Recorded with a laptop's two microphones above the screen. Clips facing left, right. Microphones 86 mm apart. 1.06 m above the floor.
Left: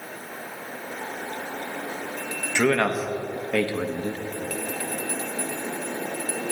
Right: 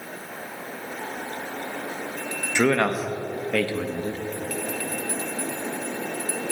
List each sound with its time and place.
2.5 s a man speaking: 10° right (ahead or behind), 1.2 m; by 4.2 s 35° left (ahead or behind), 0.9 m